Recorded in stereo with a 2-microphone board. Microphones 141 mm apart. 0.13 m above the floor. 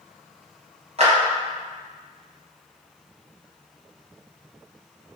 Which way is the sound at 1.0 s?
50° right (ahead or behind).